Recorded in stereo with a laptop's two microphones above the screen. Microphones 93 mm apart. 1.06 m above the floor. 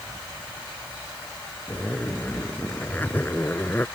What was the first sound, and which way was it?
A zipper, 20° left (ahead or behind).